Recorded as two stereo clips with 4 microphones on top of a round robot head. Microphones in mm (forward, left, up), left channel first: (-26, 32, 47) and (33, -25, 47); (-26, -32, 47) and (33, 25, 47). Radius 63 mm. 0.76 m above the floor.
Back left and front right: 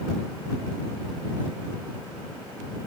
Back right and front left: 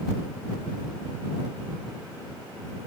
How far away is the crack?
I don't hear a crack.